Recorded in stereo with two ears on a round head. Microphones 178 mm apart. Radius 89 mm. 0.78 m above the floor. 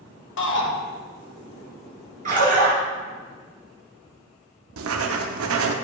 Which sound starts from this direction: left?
A shout, at 0.4 s.